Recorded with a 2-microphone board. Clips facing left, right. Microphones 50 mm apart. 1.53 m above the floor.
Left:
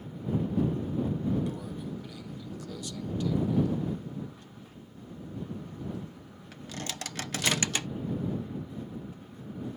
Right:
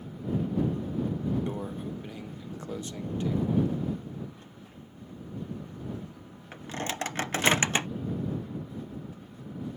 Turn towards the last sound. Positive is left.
turn(degrees=-30)  # may be behind; listen again after turning